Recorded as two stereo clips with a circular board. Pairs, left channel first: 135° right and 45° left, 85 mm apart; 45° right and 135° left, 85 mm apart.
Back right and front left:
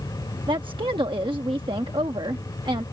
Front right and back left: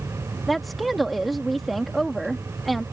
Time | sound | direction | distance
0.5 | a woman speaking | 45° left | ?